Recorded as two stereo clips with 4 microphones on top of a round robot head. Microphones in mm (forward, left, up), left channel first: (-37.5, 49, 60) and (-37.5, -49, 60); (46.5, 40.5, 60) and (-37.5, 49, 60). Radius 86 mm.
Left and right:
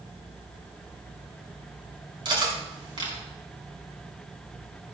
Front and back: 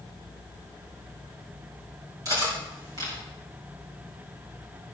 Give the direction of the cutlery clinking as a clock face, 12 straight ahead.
4 o'clock.